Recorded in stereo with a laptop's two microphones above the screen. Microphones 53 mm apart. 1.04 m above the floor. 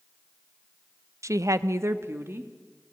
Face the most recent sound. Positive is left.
turn(degrees=-45)  # may be behind; listen again after turning